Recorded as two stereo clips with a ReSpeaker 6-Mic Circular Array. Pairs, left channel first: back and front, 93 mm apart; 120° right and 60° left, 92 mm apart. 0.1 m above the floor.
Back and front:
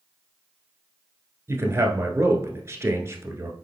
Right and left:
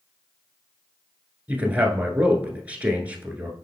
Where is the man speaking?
5° left, 1.2 m.